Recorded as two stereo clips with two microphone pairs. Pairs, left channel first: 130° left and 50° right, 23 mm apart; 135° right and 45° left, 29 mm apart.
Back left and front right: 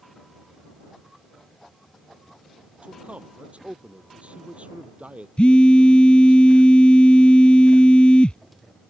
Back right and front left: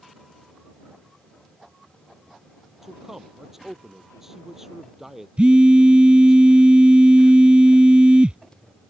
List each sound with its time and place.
2.8 s a man speaking: 25° right
5.4 s a phone buzzing: 95° left